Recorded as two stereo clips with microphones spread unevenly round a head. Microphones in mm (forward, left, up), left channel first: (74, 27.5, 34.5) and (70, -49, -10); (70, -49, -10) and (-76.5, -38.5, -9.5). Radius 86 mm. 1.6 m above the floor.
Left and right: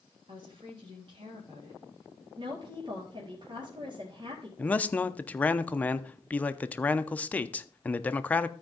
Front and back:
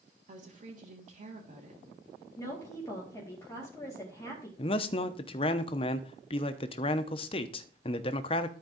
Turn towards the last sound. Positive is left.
turn(degrees=45)